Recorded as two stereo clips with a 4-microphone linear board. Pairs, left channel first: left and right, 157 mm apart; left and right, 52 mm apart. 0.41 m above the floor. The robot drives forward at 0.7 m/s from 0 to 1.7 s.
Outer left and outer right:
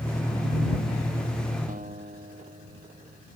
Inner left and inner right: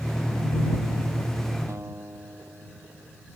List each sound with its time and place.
1.7 s a guitar: 60° right (ahead or behind)